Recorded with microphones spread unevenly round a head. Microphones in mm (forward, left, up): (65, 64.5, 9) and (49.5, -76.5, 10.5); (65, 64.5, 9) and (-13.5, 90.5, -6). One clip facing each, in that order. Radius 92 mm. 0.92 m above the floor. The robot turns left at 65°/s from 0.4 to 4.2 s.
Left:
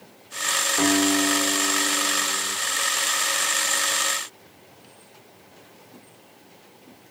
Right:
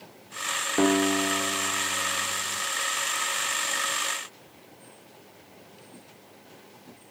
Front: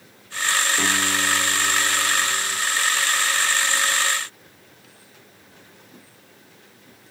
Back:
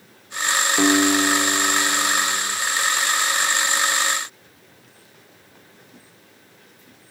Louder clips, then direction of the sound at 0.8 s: Left 1 dB, back 6 dB; 155° right.